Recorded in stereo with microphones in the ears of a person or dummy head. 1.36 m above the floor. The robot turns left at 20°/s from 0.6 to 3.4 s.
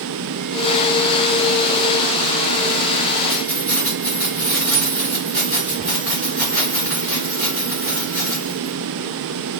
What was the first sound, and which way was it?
Keys jangling, 10° left (ahead or behind).